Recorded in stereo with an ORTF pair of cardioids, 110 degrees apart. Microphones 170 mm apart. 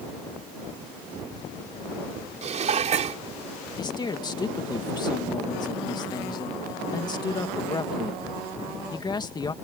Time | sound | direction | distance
2.4 | dishes clattering | 45° right | ?
3.8 | a man speaking | 25° left | ?